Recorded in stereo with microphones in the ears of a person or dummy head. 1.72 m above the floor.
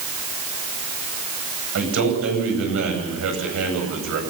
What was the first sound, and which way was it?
A man speaking, 80° right.